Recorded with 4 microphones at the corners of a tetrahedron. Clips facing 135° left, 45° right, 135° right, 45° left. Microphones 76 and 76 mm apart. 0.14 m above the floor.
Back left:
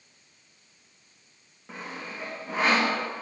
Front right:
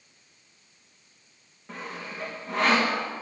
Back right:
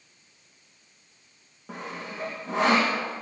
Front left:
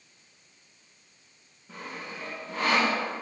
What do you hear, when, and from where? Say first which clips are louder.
1.7 s sawing: front right 1 dB, back right 3 dB; 140° right, 7 m